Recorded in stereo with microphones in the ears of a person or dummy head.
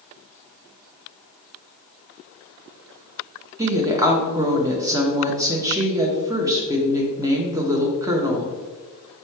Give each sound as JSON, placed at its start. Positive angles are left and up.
{"t": 3.6, "sound": "a woman speaking", "side_deg": -20, "distance_m": 0.6}